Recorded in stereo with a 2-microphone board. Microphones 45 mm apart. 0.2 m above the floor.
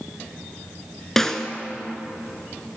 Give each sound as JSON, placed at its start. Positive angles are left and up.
{"t": 1.2, "sound": "a snare drum", "side_deg": 10, "distance_m": 0.7}